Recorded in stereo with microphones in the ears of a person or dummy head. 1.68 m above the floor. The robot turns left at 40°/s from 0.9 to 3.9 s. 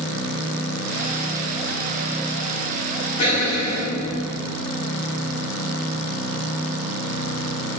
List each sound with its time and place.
3.2 s an explosion: 25° left (ahead or behind), 1.0 m; by 4.6 s 55° left (ahead or behind), 1.0 m